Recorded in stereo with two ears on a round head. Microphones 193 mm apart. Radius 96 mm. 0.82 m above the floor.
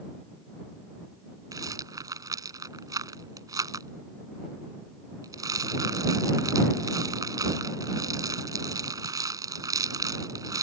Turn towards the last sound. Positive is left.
turn(degrees=-15)  # may be behind; listen again after turning